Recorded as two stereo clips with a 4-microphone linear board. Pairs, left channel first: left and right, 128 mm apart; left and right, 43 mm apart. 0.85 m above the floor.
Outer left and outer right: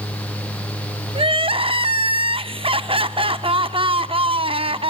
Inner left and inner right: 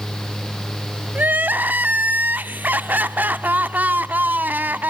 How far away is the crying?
About 0.6 m.